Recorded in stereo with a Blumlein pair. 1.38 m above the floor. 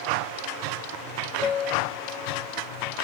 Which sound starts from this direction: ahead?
A piano, at 1.4 s.